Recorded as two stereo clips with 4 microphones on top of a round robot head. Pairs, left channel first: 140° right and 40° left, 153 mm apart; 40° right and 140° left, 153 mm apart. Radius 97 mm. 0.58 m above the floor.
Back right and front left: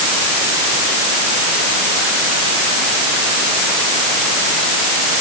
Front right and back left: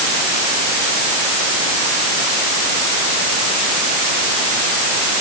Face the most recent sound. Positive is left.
No sound to turn to.